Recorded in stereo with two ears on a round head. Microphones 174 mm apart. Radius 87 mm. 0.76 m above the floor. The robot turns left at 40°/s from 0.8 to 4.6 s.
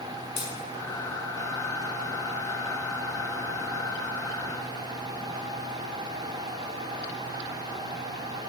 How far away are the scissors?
About 4 m.